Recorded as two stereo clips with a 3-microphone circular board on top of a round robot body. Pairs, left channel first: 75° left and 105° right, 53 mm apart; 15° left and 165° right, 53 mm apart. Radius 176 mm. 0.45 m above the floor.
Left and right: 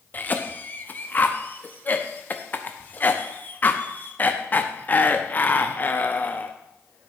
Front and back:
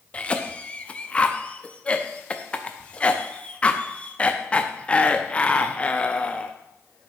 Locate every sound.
0.1 s a cough: 65° left, 0.8 m